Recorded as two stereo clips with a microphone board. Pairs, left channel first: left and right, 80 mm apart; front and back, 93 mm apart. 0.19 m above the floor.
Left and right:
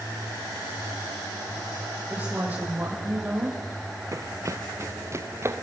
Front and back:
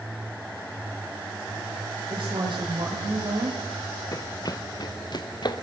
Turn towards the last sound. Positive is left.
turn(degrees=-35)